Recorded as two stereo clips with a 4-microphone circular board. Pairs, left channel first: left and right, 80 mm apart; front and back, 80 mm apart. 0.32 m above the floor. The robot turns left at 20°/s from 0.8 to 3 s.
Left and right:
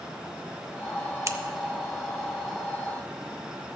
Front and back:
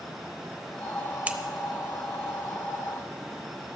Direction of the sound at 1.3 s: 115° right.